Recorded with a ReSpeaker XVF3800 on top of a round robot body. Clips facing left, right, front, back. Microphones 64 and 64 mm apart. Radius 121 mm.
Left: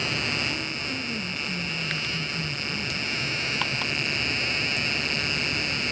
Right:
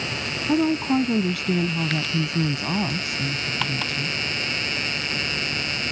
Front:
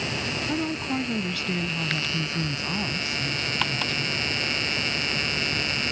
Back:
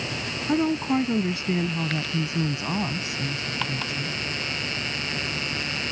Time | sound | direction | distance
0.5 | a woman speaking | 115° right | ?